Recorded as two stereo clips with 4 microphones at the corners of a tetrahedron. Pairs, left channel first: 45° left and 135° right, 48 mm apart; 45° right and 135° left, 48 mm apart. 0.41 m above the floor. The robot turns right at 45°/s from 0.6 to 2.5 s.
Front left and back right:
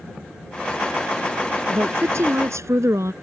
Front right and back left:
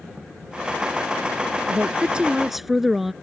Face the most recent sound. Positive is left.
turn(degrees=-135)